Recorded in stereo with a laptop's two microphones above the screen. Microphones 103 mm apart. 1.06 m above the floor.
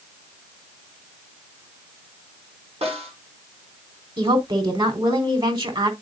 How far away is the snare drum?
About 4 m.